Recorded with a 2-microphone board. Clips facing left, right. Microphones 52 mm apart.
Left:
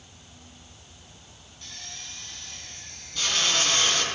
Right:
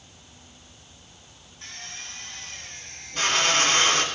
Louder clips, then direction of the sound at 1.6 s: Right 3 dB; 40° right (ahead or behind).